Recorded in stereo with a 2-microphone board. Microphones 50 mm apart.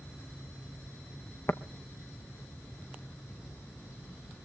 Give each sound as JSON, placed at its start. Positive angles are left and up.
{"t": 1.5, "sound": "tapping", "side_deg": 55, "distance_m": 0.8}